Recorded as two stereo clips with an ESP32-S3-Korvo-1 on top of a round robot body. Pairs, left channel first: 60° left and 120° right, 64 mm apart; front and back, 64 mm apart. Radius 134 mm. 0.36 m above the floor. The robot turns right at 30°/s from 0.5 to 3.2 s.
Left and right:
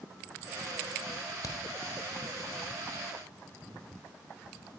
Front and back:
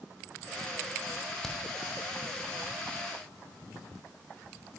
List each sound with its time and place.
1.4 s a crack: 85° left, 2 m; by 1.6 s 90° left, 2 m